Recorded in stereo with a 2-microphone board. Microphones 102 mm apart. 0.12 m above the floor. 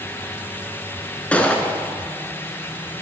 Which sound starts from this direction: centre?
A gunshot, at 1.3 s.